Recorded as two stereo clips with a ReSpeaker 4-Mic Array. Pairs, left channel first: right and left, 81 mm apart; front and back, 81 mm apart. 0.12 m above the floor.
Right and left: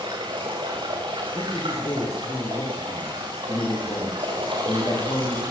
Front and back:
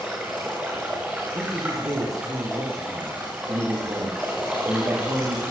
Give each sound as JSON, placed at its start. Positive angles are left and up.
{"t": 0.0, "sound": "running water", "azimuth_deg": 100, "distance_m": 7.0}
{"t": 1.4, "sound": "a man speaking", "azimuth_deg": -140, "distance_m": 8.0}